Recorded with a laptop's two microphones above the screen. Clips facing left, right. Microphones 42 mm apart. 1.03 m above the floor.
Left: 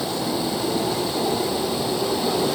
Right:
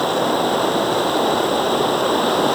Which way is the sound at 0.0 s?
55° right (ahead or behind).